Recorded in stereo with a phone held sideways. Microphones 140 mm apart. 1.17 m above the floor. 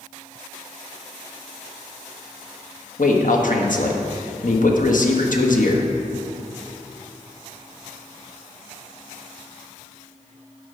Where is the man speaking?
70° left (ahead or behind), 1.2 m.